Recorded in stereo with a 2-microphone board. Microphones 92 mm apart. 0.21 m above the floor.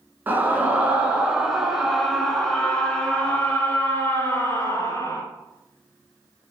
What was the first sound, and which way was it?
A scream, 20° right (ahead or behind).